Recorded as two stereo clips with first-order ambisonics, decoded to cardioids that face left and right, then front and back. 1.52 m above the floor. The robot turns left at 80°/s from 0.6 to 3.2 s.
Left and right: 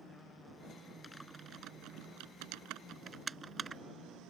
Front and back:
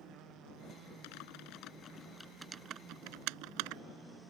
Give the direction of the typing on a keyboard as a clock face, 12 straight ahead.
12 o'clock.